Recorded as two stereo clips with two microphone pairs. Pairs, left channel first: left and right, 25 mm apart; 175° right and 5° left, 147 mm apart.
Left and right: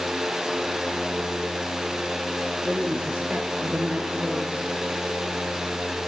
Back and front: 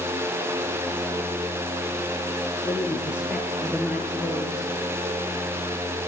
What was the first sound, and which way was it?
A woman speaking, 75° right.